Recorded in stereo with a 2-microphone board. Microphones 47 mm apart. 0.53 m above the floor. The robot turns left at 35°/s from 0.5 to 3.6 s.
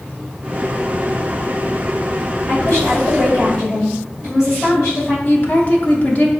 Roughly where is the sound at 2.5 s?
Left.